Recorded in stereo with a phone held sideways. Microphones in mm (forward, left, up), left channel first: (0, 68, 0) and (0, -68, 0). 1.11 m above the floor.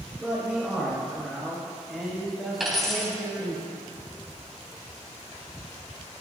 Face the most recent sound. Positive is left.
turn(degrees=-5)  # may be behind; listen again after turning